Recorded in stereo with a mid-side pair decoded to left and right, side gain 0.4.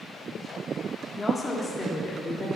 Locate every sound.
1.2 s a woman speaking: 15° left, 3 m; by 2.5 s 25° left, 4.5 m